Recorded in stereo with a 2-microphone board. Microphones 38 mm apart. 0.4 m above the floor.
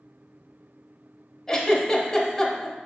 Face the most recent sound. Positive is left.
turn(degrees=15)  # may be behind; listen again after turning